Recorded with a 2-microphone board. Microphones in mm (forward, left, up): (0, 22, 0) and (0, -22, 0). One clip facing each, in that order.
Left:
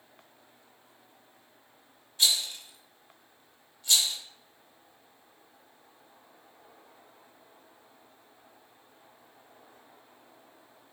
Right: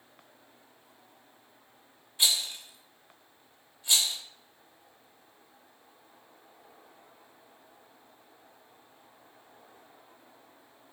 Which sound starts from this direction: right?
A rattle, at 2.2 s.